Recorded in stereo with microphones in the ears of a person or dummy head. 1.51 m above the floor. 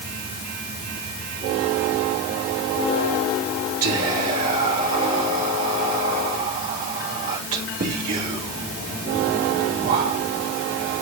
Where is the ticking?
No ticking in this recording.